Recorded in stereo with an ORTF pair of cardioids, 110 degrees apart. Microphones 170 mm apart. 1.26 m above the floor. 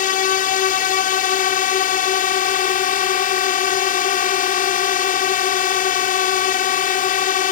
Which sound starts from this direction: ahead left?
A drone, at 0.0 s.